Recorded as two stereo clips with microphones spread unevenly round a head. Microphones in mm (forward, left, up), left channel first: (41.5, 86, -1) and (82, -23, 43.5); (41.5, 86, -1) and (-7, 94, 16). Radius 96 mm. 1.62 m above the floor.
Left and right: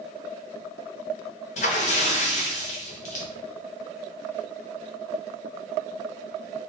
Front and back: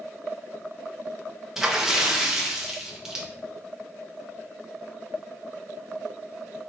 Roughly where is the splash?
Behind left.